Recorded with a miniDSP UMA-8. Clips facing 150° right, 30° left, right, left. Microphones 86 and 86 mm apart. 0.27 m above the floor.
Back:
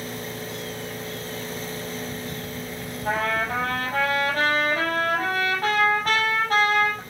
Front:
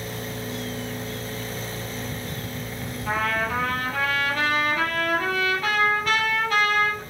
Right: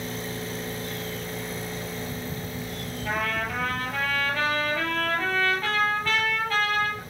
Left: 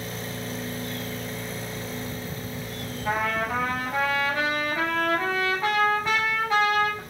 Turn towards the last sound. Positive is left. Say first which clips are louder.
# back 1 dB, left 3 dB
turn(degrees=160)